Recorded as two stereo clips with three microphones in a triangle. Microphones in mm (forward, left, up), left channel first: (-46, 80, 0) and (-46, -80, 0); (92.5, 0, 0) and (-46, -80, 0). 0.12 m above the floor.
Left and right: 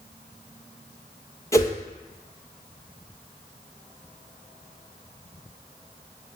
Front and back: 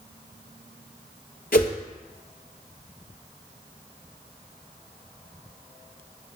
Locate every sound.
1.5 s a whoosh: 20° left, 0.5 m